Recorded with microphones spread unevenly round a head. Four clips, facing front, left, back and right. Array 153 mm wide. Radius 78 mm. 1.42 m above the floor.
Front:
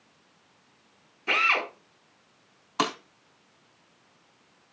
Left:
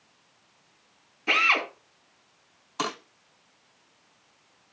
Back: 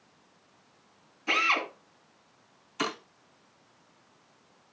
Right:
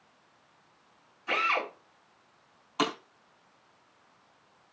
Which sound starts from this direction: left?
A drill, at 1.3 s.